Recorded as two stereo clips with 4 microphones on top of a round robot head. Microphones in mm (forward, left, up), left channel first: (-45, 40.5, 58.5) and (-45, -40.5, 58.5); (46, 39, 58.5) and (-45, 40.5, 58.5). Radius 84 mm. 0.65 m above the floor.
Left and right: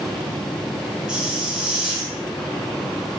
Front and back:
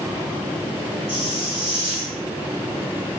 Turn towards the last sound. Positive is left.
turn(degrees=-175)